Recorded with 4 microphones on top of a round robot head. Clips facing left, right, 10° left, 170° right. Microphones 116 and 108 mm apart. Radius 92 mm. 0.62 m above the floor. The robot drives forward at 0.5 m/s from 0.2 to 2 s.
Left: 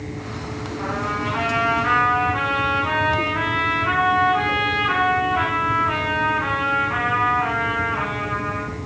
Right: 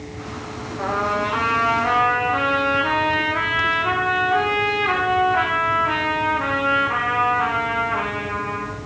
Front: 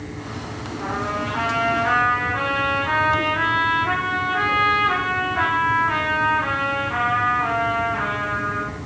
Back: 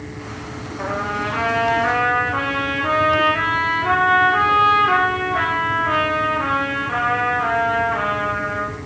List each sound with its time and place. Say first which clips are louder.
0.8 s a trumpet: right 4 dB, back 2 dB; 140° right, 6 m; by 8.8 s 145° right, 6.5 m